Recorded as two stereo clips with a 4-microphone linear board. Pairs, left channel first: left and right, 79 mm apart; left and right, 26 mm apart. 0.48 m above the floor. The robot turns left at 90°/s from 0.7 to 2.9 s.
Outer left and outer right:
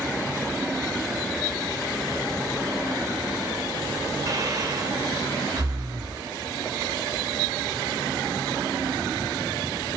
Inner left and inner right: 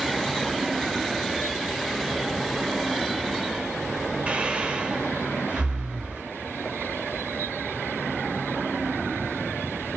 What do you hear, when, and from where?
4.3 s breathing: 50° right (ahead or behind), 2 m